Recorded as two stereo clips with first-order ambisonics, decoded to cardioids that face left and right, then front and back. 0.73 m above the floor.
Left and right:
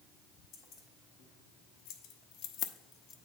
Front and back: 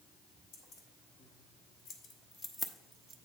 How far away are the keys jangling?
About 1.5 m.